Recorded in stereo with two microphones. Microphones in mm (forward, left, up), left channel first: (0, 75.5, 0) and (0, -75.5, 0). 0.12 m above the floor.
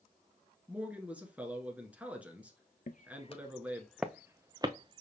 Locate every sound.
0.7 s a man speaking: 10° right (ahead or behind), 1.2 m
2.9 s footsteps: 60° left (ahead or behind), 0.6 m; by 5.0 s 35° right (ahead or behind), 1.0 m